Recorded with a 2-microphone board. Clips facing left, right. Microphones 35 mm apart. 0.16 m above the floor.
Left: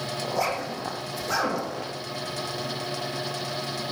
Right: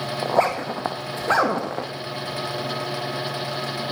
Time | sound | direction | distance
0.2 | a zipper | 45° right (ahead or behind) | 3 m